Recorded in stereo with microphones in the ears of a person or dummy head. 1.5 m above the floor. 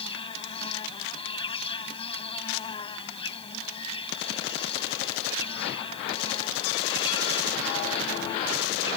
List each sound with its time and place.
0.0 s an insect: 30° left (ahead or behind)